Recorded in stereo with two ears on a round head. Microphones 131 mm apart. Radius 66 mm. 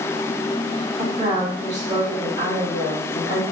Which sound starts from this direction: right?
A woman speaking, at 1.0 s.